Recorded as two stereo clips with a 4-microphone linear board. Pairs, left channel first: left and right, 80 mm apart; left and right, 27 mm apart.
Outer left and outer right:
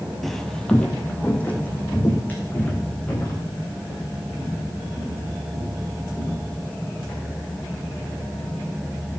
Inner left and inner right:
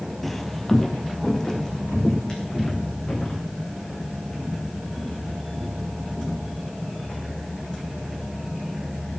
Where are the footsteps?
Centre (ahead or behind), 0.9 m; by 7.2 s 25° left (ahead or behind), 8 m.